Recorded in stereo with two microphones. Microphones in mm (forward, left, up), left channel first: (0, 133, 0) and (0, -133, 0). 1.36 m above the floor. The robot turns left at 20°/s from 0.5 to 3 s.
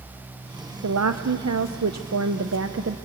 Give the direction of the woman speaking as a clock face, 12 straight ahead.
3 o'clock.